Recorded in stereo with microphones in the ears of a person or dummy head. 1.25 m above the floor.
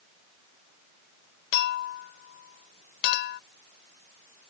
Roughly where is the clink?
Left.